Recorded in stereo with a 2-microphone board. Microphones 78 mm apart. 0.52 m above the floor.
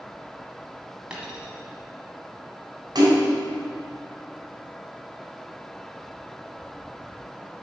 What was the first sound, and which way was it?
A dropped coin, 10° right (ahead or behind).